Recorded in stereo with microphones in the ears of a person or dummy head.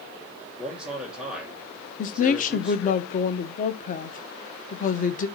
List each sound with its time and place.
0.6 s a man speaking: centre (ahead or behind), 1.1 m
2.0 s a woman speaking: 40° left (ahead or behind), 0.7 m